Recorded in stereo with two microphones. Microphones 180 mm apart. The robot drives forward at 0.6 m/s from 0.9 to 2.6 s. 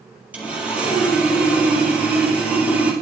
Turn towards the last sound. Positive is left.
turn(degrees=-10)  # may be behind; listen again after turning